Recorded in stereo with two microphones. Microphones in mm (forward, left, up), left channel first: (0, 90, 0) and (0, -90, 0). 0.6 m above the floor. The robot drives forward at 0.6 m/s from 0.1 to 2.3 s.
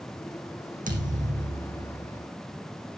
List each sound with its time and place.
0.9 s a thud: 45° right (ahead or behind), 3.5 m; by 2.2 s 35° right (ahead or behind), 4 m